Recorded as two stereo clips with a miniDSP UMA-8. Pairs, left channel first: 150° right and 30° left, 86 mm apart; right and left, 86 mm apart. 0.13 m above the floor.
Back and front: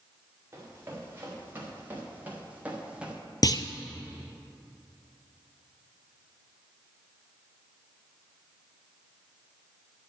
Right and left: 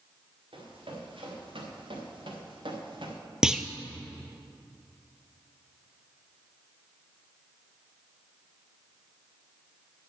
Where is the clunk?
170° left, 0.5 m.